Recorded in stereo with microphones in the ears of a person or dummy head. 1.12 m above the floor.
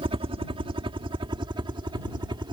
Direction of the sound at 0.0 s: 30° right (ahead or behind).